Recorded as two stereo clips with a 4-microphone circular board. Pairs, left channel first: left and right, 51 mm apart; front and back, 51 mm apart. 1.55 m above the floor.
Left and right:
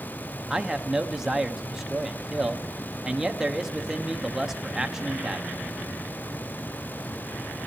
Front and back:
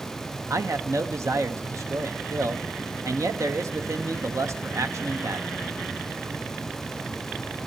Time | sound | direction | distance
0.5 | a man speaking | 170° right | 1.0 m